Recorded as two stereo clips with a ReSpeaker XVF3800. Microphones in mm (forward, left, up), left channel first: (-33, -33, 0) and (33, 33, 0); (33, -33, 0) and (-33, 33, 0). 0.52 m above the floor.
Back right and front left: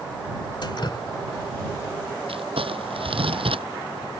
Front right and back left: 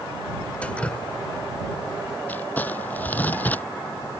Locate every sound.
0.6 s dripping: 120° right
2.3 s crumpling: 30° left